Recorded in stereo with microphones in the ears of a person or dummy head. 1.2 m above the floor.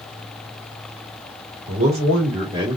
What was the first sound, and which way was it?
A man speaking, 35° right (ahead or behind).